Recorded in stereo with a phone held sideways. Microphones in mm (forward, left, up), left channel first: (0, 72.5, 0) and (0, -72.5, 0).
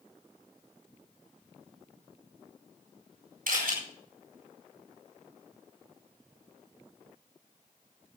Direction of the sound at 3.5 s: 85° right.